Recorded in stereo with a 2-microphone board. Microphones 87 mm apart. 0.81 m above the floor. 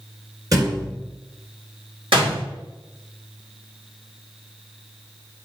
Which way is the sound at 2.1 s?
80° right.